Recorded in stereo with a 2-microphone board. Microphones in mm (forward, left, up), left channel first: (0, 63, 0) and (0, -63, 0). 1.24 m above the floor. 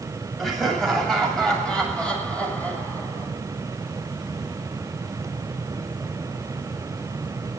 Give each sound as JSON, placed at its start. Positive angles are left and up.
{"t": 0.4, "sound": "laughter", "side_deg": 0, "distance_m": 7.5}